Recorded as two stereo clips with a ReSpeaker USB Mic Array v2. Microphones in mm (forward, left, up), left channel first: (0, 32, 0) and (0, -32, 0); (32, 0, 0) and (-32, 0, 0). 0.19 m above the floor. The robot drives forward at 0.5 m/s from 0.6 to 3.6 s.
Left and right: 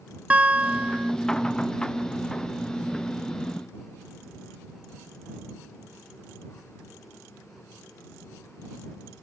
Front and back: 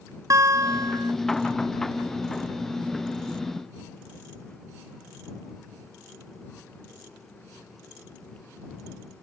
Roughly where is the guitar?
Behind right.